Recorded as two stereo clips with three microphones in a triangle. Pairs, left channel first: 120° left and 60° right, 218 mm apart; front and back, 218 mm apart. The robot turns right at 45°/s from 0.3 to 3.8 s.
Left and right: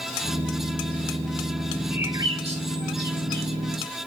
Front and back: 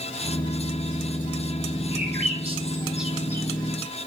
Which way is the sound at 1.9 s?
145° right.